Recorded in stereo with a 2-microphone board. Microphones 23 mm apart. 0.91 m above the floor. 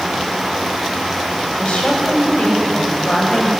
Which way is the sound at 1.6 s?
70° left (ahead or behind).